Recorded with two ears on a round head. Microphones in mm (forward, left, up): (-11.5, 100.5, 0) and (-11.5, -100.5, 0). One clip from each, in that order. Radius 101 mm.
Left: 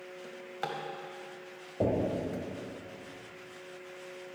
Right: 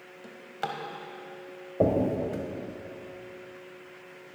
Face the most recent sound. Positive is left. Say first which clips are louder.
# right 5 dB
turn(degrees=-45)  # may be behind; listen again after turning